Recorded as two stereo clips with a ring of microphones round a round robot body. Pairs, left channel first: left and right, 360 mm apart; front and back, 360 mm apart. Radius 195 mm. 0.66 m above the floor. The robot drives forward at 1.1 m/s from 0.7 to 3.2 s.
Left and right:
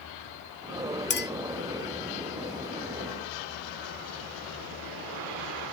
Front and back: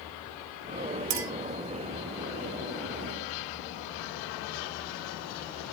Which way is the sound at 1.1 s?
150° left.